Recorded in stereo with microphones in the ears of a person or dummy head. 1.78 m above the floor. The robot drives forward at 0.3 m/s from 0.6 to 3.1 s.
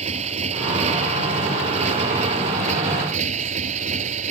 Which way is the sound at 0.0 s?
40° right (ahead or behind).